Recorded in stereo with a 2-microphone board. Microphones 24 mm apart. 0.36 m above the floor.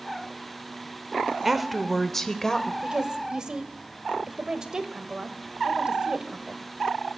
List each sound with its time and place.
1.4 s a woman speaking: 10° right (ahead or behind), 0.9 m; by 2.7 s 30° left (ahead or behind), 1.2 m
2.8 s a woman speaking: 30° right (ahead or behind), 1.2 m